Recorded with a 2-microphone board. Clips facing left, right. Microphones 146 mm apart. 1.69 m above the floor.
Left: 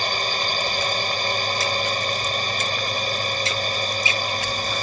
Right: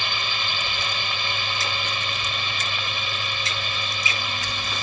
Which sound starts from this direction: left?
A drone, at 0.0 s.